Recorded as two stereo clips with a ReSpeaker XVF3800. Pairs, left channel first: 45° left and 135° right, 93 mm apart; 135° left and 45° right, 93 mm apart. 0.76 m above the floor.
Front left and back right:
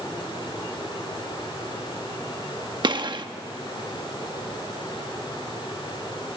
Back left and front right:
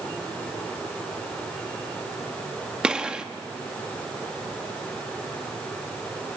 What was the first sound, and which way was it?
A gunshot, 125° right.